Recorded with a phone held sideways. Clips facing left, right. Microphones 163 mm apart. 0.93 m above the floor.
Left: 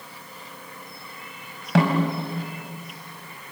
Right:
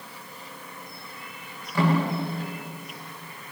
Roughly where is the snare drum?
Left.